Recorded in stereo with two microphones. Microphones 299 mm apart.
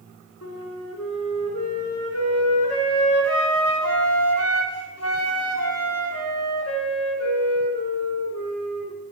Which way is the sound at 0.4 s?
55° left (ahead or behind).